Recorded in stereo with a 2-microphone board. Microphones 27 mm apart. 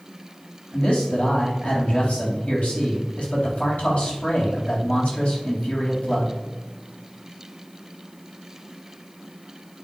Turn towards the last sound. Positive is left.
turn(degrees=50)  # may be behind; listen again after turning